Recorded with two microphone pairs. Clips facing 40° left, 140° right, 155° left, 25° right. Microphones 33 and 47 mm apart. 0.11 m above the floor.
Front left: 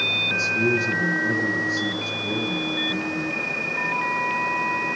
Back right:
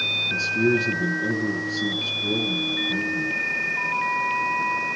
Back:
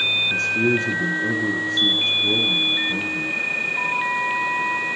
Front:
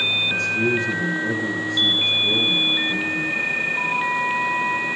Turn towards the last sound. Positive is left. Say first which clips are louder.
# even, back 1 dB
turn(degrees=170)